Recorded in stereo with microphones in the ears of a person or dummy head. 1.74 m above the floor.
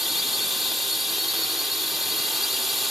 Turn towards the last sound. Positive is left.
turn(degrees=0)  # may be behind; listen again after turning